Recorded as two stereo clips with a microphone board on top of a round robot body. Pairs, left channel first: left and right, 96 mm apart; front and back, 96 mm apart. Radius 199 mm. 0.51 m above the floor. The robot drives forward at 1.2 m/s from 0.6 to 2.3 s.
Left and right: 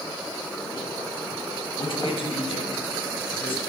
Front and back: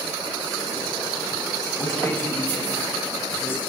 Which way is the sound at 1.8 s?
60° left.